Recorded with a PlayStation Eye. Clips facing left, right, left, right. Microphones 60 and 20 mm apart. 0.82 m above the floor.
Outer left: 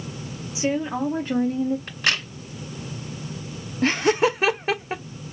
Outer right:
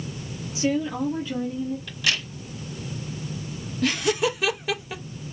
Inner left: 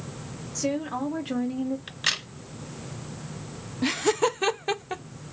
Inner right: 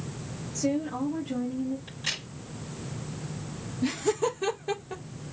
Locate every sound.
0.6 s a woman speaking: 20° left (ahead or behind), 1.5 m; by 1.8 s 70° left (ahead or behind), 1.1 m
1.9 s a crack: 40° left (ahead or behind), 2 m
3.8 s laughter: 35° left (ahead or behind), 0.6 m